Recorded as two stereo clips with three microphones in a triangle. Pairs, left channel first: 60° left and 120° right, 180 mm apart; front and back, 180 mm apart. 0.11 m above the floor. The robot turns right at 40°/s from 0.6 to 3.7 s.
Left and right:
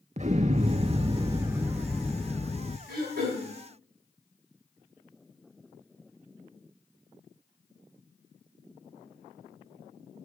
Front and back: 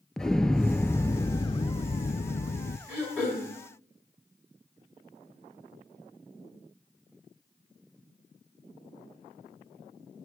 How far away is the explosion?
About 0.5 m.